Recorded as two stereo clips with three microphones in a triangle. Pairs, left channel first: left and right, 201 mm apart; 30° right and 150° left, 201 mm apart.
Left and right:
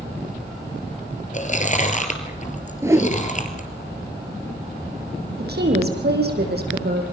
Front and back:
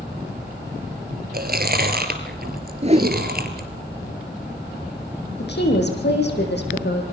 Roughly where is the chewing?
Behind left.